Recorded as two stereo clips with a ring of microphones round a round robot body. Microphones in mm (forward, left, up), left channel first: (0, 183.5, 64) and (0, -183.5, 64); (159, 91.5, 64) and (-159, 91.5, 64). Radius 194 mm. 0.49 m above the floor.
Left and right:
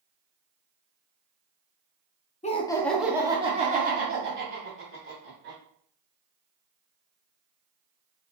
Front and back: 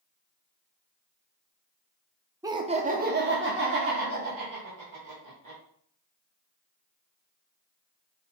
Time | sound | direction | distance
2.4 | laughter | 120° left | 0.7 m